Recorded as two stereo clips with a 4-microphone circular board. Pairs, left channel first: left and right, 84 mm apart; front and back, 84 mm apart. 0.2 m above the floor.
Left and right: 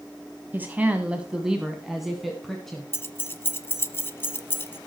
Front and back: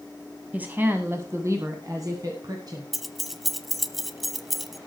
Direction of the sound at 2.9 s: 95° left.